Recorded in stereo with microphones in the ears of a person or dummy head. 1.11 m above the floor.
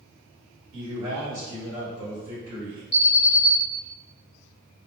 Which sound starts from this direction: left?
An alarm, at 2.9 s.